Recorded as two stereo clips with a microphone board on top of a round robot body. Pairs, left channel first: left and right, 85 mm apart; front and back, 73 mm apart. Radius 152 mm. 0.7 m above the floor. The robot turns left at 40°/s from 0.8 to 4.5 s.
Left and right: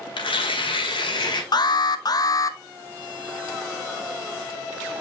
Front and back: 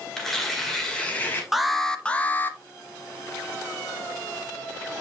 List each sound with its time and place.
0.2 s tearing paper: 85° left, 1.7 m; by 1.4 s 60° left, 1.7 m
1.5 s an alarm: 95° left, 1.0 m; by 2.6 s 50° left, 1.0 m